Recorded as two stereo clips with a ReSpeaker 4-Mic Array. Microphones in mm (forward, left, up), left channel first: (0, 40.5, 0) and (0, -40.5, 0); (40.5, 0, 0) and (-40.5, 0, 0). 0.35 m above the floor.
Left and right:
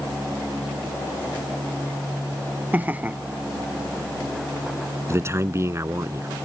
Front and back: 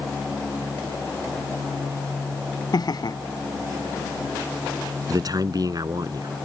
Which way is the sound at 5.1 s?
145° right.